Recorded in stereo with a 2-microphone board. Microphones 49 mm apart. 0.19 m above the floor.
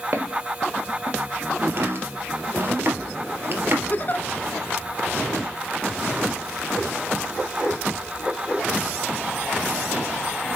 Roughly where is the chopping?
Right.